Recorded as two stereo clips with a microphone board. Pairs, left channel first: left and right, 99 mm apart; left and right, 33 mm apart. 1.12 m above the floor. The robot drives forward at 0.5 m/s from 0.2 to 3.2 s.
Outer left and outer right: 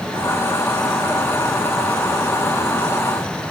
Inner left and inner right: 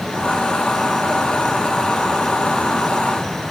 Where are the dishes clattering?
I don't hear dishes clattering.